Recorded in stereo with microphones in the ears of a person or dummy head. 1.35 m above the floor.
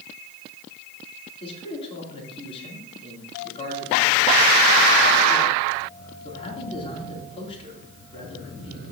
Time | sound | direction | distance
1.4 | a man speaking | 25° left (ahead or behind) | 3 m